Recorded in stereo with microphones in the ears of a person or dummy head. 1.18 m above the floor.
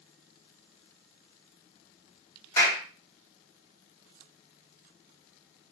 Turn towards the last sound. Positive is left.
turn(degrees=20)  # may be behind; listen again after turning